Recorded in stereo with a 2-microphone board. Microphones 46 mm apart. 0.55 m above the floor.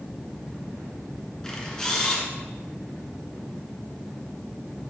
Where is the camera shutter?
15° left (ahead or behind), 1.8 m.